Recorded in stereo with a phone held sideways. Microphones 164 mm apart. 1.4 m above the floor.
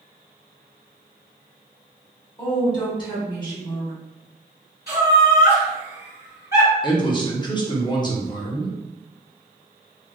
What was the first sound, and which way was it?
A woman speaking, 25° left (ahead or behind).